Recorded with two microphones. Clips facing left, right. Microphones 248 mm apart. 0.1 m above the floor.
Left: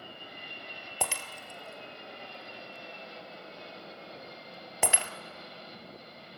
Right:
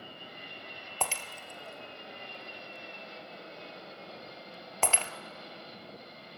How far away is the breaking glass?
About 0.8 m.